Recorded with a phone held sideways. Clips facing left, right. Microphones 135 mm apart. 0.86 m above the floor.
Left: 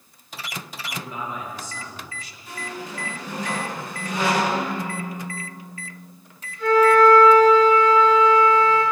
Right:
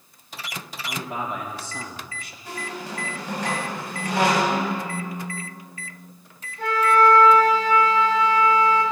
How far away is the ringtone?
About 5 m.